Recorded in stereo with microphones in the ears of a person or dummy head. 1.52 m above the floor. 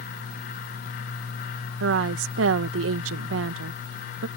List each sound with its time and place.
1.8 s a woman speaking: 80° right